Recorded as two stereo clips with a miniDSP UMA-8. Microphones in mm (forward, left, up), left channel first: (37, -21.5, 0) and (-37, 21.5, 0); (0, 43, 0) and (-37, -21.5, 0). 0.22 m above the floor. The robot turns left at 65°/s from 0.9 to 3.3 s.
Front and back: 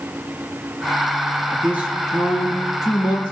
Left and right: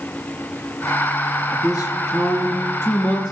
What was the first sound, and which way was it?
A man speaking, 95° left.